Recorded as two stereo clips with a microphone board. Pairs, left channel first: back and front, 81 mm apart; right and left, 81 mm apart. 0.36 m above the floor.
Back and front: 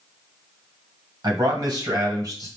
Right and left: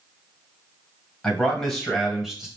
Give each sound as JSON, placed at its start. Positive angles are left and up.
{"t": 1.2, "sound": "a man speaking", "azimuth_deg": -15, "distance_m": 2.0}